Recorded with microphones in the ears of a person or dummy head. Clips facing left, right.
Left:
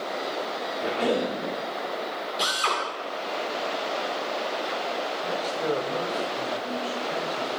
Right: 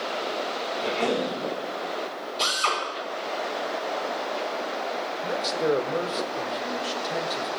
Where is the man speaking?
30° right (ahead or behind), 0.8 m.